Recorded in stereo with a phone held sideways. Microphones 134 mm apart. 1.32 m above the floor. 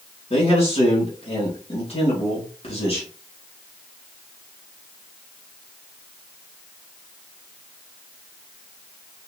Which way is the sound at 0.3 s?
45° left (ahead or behind).